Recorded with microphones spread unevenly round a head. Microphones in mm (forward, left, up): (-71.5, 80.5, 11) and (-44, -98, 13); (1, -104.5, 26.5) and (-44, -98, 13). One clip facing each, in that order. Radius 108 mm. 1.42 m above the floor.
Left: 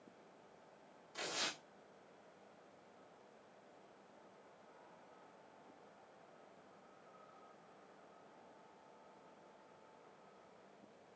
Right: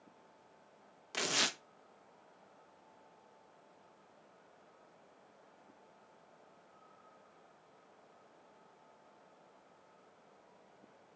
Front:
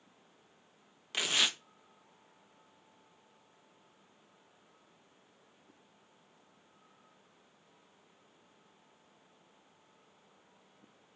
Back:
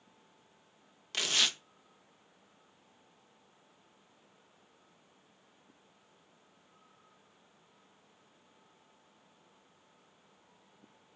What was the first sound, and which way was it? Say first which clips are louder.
Tearing paper: right 7 dB, even; 85° right.